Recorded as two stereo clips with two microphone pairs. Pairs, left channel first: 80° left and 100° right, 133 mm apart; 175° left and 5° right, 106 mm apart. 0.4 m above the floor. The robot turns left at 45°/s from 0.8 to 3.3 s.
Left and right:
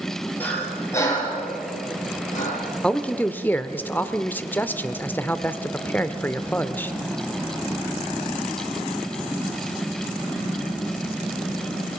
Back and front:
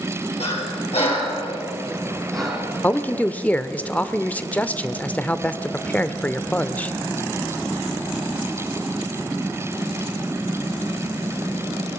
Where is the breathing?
160° left, 5.5 m; by 2.6 s 75° left, 5.5 m.